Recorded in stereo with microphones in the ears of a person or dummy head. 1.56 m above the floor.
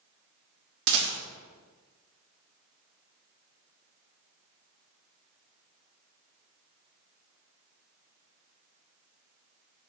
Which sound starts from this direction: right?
A rattle, at 0.9 s.